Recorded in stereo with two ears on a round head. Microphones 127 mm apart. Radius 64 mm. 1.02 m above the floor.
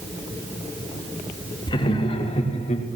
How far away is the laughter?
About 3 m.